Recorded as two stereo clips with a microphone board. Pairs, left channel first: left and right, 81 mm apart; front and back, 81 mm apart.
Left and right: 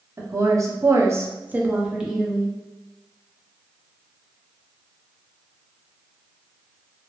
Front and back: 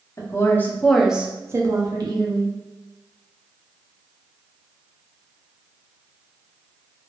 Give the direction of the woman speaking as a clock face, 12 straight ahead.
1 o'clock.